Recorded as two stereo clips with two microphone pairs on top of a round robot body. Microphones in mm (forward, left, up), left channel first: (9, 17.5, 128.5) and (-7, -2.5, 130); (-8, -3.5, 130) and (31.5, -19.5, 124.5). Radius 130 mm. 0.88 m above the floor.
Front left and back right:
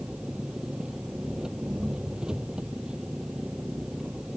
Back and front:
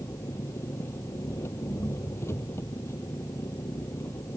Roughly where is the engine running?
Behind.